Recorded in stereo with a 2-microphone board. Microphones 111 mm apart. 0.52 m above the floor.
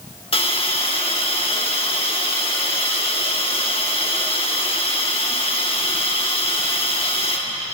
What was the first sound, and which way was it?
A hiss, 50° left (ahead or behind).